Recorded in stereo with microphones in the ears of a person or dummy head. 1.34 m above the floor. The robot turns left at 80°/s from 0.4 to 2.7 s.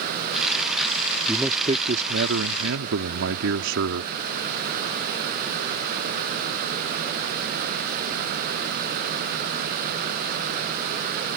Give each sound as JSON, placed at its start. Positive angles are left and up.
{"t": 1.3, "sound": "a man speaking", "azimuth_deg": 5}